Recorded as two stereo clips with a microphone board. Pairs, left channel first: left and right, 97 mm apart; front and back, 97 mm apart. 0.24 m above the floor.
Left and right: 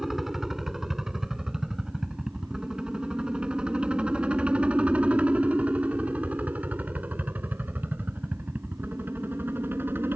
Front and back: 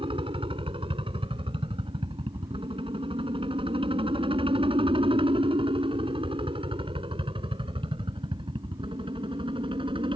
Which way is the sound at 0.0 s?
175° right.